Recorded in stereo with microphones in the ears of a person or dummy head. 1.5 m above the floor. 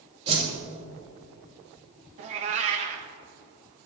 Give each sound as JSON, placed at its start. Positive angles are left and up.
{"t": 0.3, "sound": "a whoosh", "side_deg": -35, "distance_m": 2.5}
{"t": 2.2, "sound": "a cat meowing", "side_deg": -35, "distance_m": 0.8}